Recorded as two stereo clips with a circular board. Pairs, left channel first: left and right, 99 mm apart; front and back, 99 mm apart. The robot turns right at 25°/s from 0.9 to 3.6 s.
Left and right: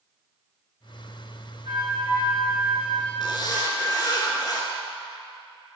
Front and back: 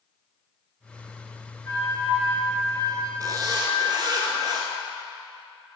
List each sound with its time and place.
1.6 s a flute: 60° right, 2 m; by 4.2 s 15° right, 2 m
3.2 s a zipper: 130° left, 1.0 m; by 4.7 s 140° left, 1.0 m